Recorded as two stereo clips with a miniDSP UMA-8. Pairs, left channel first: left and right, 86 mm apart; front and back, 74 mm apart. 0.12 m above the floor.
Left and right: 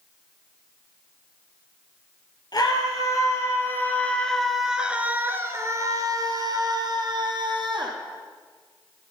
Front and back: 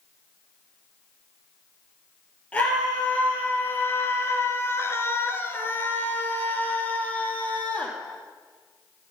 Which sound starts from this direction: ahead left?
A scream, at 2.5 s.